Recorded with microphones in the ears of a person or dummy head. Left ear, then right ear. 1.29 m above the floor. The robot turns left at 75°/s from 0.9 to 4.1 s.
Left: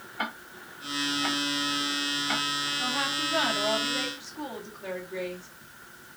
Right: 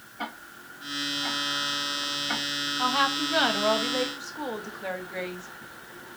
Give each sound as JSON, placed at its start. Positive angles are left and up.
{"t": 0.2, "sound": "ticking", "side_deg": 55, "distance_m": 1.5}
{"t": 2.8, "sound": "a woman speaking", "azimuth_deg": -40, "distance_m": 1.8}